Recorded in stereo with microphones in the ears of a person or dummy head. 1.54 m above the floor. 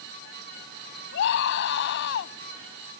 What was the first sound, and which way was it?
A scream, 70° left (ahead or behind).